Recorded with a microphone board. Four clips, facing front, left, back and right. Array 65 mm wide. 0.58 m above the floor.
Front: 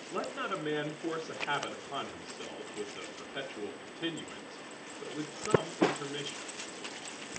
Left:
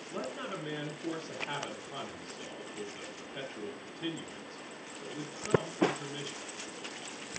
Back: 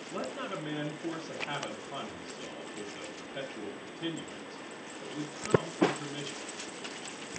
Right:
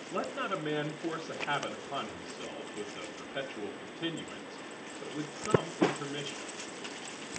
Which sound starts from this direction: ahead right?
A man speaking, at 0.1 s.